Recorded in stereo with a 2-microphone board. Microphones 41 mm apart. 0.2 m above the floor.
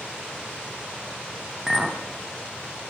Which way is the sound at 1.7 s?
20° right (ahead or behind).